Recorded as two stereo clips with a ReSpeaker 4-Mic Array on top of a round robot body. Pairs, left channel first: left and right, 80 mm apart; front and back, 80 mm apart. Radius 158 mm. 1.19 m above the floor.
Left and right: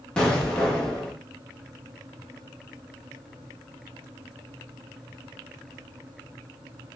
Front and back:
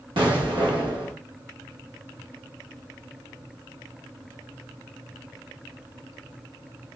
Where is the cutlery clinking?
No cutlery clinking in this recording.